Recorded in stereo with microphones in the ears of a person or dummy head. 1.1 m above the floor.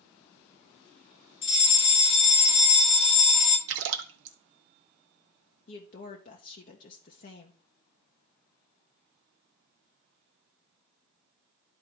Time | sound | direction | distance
1.4 | a fire alarm | 30° left (ahead or behind) | 1.4 m
3.7 | a splash | 65° right (ahead or behind) | 0.7 m
5.7 | a woman speaking | 45° left (ahead or behind) | 0.8 m